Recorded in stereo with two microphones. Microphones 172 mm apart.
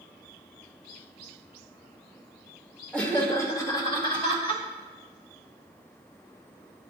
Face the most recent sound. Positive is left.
turn(degrees=35)  # may be behind; listen again after turning